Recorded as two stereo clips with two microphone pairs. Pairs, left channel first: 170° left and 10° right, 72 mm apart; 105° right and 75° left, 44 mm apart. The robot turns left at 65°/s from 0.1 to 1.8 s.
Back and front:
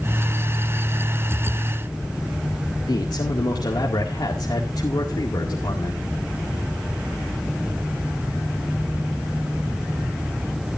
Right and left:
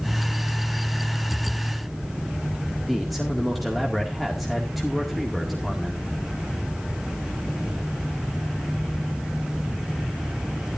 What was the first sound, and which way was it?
A man speaking, 165° left.